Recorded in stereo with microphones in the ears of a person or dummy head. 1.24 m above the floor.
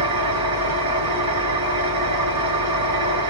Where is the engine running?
75° right (ahead or behind), 2 m.